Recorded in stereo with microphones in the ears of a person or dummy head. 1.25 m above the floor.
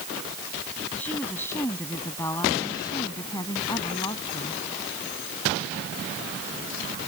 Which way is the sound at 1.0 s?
10° left (ahead or behind).